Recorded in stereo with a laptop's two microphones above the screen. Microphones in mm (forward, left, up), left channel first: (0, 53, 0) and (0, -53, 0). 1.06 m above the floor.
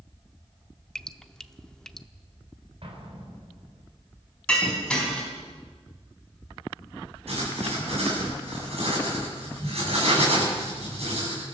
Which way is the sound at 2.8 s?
60° right (ahead or behind).